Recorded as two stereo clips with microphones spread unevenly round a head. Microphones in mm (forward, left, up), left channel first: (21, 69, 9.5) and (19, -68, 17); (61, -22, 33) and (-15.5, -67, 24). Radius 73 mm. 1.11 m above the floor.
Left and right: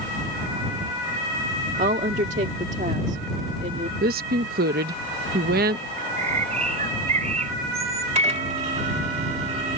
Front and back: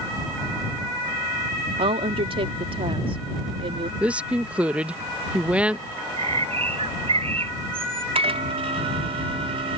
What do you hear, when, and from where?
1.8 s a woman speaking: 135° right
4.0 s a woman speaking: 75° right
6.0 s a bird: 140° right
8.2 s a microwave: 140° right